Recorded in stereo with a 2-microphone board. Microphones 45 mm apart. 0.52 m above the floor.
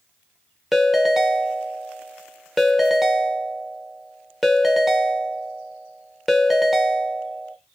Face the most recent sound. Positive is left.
turn(degrees=-5)  # may be behind; listen again after turning